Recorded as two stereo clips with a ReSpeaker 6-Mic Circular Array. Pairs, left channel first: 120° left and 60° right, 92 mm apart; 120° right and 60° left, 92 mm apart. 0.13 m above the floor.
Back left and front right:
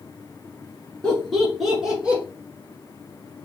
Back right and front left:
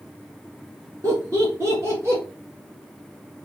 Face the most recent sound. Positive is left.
turn(degrees=10)